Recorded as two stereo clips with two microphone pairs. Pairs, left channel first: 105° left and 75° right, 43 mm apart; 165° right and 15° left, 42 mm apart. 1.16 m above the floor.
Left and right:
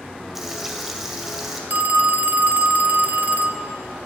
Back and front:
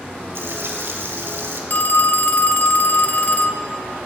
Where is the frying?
10° left, 1.8 m.